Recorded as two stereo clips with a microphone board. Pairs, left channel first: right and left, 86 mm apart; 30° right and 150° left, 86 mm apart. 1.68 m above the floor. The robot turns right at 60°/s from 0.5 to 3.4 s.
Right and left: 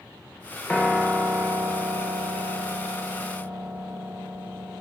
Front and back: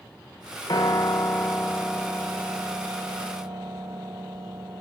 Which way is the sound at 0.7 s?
15° right.